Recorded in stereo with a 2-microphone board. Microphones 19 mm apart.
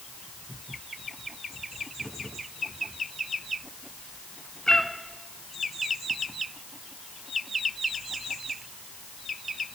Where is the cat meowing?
40° left (ahead or behind), 1.3 m.